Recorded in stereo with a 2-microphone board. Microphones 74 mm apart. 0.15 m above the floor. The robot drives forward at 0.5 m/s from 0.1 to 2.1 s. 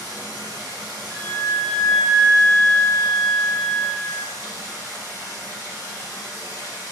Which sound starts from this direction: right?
Running water, at 0.0 s.